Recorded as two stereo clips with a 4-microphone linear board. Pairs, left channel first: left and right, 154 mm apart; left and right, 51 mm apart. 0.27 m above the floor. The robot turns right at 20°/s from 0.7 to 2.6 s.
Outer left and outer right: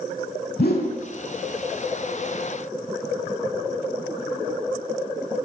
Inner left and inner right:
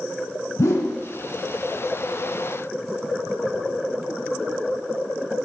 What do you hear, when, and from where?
0.6 s a whoosh: 85° left, 0.5 m; by 0.9 s 90° left, 0.5 m